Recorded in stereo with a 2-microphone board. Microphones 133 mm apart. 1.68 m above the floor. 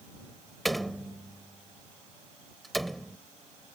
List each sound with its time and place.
0.7 s a door slam: centre (ahead or behind)